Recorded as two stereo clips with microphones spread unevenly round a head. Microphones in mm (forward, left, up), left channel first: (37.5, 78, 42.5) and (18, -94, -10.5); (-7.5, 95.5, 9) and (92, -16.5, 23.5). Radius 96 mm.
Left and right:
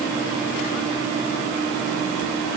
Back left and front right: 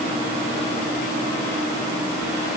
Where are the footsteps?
No footsteps in this recording.